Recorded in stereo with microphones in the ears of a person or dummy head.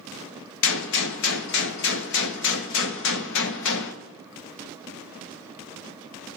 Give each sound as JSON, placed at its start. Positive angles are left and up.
{"t": 0.6, "sound": "a gunshot", "side_deg": 65, "distance_m": 1.4}